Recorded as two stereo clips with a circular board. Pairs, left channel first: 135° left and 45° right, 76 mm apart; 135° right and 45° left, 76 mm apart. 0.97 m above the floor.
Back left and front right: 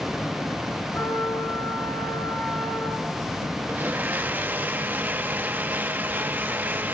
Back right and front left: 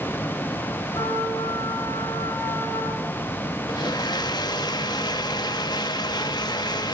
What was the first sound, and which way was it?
A trumpet, 160° right.